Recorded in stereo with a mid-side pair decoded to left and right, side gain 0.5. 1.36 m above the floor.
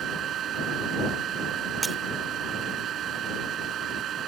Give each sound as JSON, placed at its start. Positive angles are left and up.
{"t": 0.0, "sound": "a fan", "azimuth_deg": -60}
{"t": 1.8, "sound": "breaking glass", "azimuth_deg": -20}